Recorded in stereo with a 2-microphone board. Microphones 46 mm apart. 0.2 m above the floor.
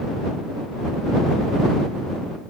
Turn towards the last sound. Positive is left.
No sound to turn to.